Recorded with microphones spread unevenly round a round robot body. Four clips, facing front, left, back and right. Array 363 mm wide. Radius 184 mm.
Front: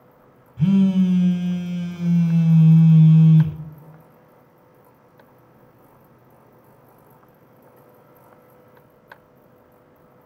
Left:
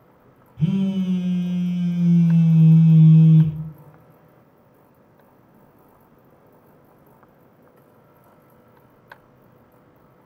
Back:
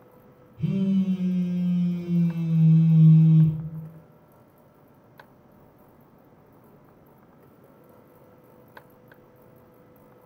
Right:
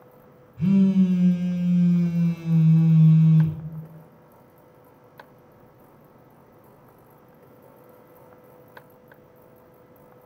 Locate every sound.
0.6 s a phone buzzing: 5° left, 1.8 m